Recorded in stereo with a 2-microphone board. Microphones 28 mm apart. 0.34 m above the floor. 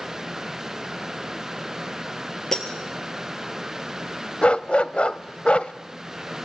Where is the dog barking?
45° left (ahead or behind), 0.7 m.